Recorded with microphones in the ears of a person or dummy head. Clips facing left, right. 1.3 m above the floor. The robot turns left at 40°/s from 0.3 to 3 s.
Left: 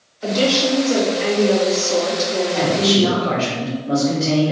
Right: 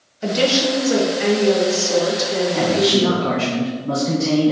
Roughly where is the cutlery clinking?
I don't hear cutlery clinking.